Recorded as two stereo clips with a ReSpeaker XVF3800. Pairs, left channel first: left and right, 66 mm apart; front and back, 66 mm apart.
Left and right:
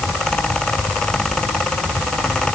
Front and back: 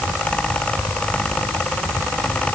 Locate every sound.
Only background noise.